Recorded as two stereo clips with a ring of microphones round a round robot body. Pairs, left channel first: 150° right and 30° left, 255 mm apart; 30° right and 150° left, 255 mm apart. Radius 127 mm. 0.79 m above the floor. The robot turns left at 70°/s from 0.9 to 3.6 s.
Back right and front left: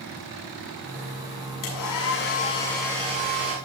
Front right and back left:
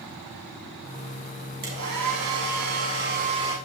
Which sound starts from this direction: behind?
A hair dryer, at 1.6 s.